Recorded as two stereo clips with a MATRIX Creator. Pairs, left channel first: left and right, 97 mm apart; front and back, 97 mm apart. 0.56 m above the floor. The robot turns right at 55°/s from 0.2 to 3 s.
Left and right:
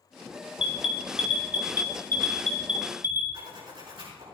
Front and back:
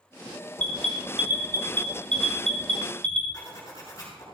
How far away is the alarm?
About 3 m.